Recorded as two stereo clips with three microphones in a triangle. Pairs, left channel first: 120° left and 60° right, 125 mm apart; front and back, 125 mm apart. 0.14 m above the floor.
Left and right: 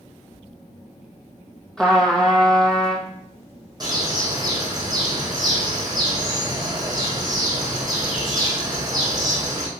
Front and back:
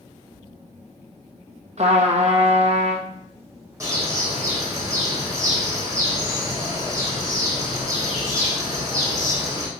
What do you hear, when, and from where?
1.8 s a trumpet: 155° right, 1.6 m
3.8 s a bird: 115° right, 3.5 m